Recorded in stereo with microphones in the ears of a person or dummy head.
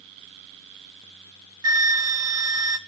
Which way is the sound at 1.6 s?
20° right (ahead or behind).